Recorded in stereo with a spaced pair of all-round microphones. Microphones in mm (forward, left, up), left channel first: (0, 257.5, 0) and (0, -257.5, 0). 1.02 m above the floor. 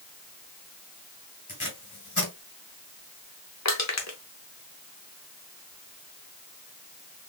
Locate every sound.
1.5 s tape being pulled: 30° left (ahead or behind), 1.6 m
3.6 s crushing: 30° left (ahead or behind), 0.8 m